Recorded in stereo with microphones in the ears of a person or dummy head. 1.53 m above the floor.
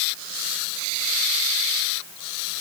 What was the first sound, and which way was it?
Only background noise.